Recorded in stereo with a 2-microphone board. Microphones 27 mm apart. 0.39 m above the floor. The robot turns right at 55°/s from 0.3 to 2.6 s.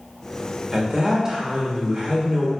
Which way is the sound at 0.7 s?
145° right.